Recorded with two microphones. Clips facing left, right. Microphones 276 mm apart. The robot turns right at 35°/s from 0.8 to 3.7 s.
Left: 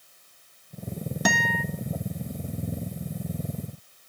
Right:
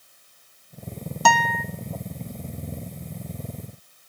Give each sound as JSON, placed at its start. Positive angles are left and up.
{"t": 1.2, "sound": "a guitar", "side_deg": 20, "distance_m": 0.6}